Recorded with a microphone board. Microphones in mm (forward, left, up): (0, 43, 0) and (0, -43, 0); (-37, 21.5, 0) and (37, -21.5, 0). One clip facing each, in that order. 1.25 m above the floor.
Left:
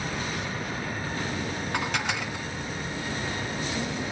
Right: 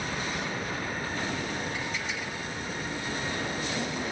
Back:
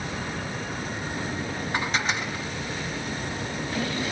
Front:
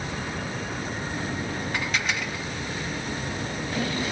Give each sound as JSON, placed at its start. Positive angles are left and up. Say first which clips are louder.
{"t": 1.7, "sound": "dishes clattering", "louder": "left 5 dB, back 3 dB", "azimuth_deg": 85, "distance_m": 1.3}